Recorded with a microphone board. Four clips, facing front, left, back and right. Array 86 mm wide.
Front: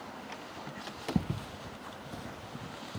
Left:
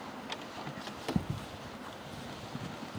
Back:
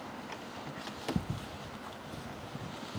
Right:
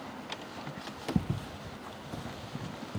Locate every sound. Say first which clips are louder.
1.1 s footsteps: right 3 dB, front 3 dB; 20° right, 0.5 m; by 3.0 s 65° right, 1.8 m